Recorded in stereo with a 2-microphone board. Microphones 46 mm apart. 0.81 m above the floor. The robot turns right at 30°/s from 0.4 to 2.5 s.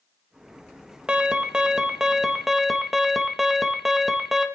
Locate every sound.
1.1 s an alarm: 20° right (ahead or behind), 0.7 m; by 4.5 s 5° right (ahead or behind), 0.7 m